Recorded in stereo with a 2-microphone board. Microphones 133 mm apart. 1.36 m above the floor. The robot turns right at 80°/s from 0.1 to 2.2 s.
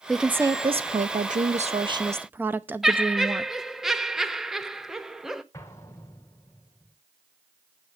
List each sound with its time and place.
0.1 s a woman speaking: 175° left, 0.6 m; by 3.5 s 15° right, 0.6 m
2.8 s laughter: 5° right (ahead or behind), 0.7 m
5.5 s an explosion: 20° left (ahead or behind), 1.6 m